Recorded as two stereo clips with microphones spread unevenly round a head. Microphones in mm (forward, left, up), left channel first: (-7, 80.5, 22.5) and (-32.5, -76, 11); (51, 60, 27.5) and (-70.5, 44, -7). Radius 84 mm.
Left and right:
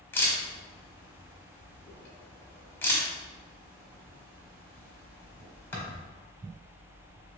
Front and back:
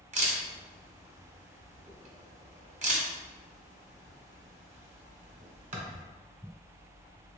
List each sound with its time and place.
0.1 s a camera shutter: 155° left, 1.1 m